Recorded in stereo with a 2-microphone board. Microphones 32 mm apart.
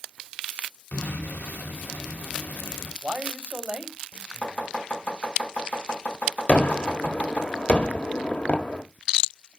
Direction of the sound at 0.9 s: 70° left (ahead or behind).